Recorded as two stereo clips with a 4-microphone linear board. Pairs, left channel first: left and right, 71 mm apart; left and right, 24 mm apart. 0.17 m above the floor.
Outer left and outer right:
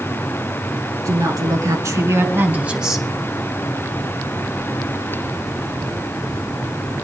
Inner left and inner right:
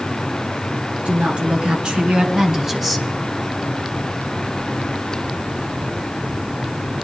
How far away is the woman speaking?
About 3 m.